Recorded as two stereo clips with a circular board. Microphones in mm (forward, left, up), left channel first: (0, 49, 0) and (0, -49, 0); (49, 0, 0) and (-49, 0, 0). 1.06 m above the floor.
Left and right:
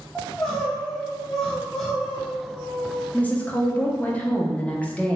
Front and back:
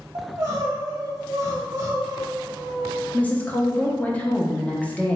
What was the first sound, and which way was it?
Crying, 175° left.